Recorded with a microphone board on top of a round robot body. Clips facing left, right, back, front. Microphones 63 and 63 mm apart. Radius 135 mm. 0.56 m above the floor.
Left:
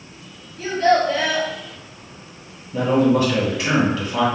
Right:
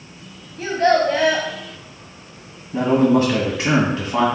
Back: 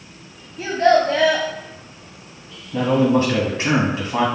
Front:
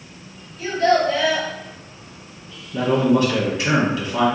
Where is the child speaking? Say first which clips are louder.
Right 1 dB, back 2 dB; 155° right, 1.0 m.